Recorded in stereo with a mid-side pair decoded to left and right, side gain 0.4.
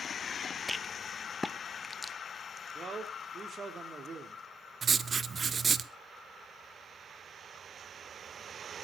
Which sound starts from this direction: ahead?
A rattle, at 0.7 s.